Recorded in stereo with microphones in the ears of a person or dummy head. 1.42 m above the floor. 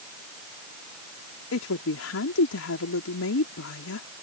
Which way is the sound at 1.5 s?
80° left.